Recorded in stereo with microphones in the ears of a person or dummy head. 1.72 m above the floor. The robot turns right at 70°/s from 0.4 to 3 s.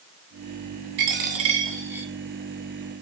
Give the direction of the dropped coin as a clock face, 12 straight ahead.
3 o'clock.